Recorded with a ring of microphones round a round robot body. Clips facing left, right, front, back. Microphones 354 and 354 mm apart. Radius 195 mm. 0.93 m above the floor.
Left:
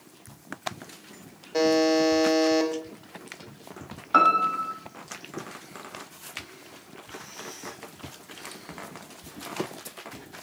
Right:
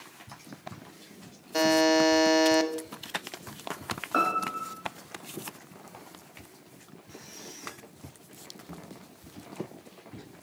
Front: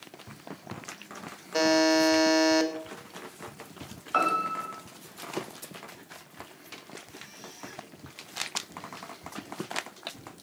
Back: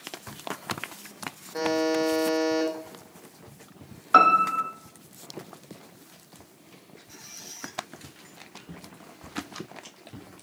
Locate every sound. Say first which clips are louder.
1.5 s a buzzer: left 2 dB, front 2 dB; 35° right, 1.6 m
4.1 s a piano: left 4 dB, back 5 dB; 165° left, 1.7 m
7.1 s a squeak: left 3 dB, front 3 dB; 155° right, 9.5 m
8.7 s footsteps: even, even; 170° right, 5.5 m; by 10.3 s 160° right, 5.5 m